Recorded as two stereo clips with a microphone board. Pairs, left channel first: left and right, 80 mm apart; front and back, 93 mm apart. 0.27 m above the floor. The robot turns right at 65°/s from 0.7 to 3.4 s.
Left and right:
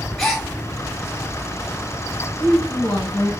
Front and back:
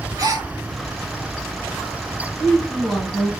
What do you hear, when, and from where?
0.2 s a gasp: 170° left, 0.9 m
2.4 s a woman speaking: 60° left, 2 m; by 3.3 s 120° left, 2 m